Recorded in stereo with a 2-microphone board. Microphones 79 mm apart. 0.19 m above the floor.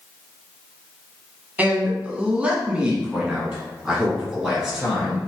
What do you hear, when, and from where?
1.6 s a man speaking: 20° right (ahead or behind), 1.0 m; by 5.2 s 5° right (ahead or behind), 2.5 m